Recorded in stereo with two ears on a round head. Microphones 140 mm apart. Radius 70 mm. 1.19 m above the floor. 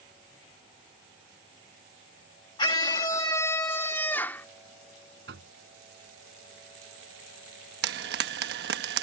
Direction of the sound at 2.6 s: 30° left (ahead or behind).